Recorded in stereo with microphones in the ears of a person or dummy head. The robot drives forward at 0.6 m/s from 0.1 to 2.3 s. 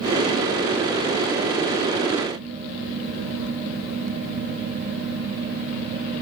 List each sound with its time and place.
Only background noise.